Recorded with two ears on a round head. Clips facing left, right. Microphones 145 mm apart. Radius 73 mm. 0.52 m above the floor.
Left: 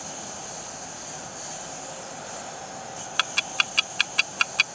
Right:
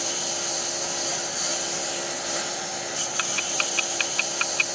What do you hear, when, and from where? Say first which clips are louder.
0.0 s a lawn mower: right 6 dB; 80° right
3.2 s ticking: right 2 dB; 60° left (ahead or behind)